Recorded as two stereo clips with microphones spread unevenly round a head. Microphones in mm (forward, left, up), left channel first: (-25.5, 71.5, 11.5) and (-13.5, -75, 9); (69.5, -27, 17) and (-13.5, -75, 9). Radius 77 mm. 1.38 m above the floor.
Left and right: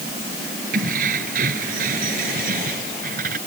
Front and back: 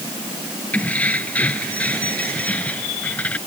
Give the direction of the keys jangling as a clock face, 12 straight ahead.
1 o'clock.